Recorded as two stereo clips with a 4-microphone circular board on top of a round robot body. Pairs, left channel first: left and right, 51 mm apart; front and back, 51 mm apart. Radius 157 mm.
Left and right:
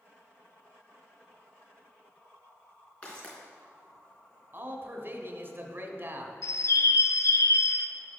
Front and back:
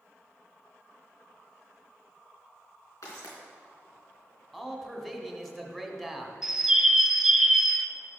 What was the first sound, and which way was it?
Footsteps, 25° left.